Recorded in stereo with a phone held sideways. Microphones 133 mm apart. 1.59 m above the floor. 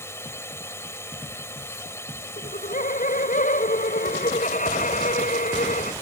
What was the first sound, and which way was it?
A drone, 20° left (ahead or behind).